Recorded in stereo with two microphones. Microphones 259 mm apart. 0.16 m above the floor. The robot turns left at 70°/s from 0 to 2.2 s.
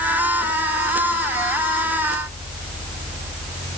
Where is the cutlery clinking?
No cutlery clinking in this recording.